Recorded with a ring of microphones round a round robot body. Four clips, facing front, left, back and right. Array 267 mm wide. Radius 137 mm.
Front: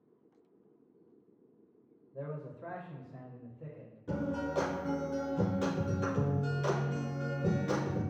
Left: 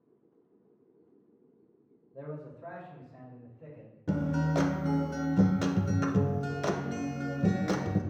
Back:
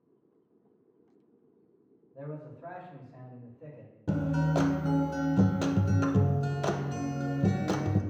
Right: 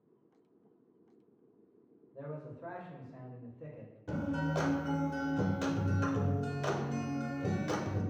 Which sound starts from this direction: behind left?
A guitar, at 4.1 s.